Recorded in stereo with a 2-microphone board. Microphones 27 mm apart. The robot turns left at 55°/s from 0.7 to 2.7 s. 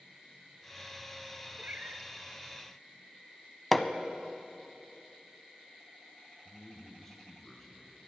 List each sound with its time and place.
1.6 s a cat meowing: 50° right (ahead or behind), 0.8 m; by 2.1 s 75° right (ahead or behind), 0.8 m
3.7 s hammering: 5° left (ahead or behind), 0.7 m
6.5 s a man speaking: 10° left (ahead or behind), 3 m